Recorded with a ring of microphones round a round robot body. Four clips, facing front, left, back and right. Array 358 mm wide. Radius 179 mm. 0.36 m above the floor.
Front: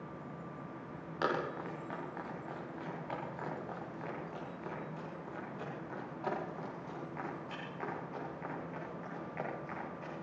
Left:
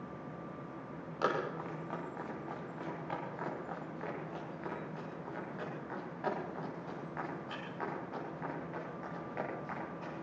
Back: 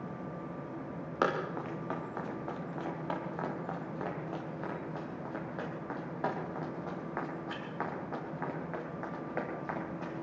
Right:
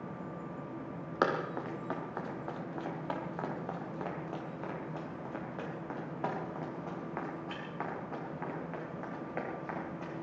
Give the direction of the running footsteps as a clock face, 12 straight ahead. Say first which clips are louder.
Right 3 dB, back 3 dB; 4 o'clock.